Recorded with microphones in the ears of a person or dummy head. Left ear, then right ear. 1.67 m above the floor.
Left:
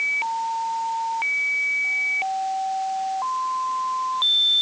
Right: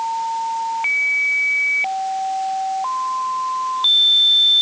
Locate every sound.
Only background noise.